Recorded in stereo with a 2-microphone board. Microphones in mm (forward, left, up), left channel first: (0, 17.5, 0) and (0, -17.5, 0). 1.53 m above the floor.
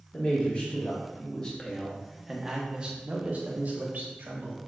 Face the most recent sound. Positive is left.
turn(degrees=-65)  # may be behind; listen again after turning